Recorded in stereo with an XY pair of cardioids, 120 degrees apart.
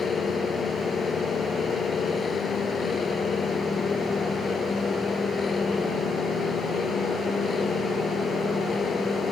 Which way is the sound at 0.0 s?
35° left.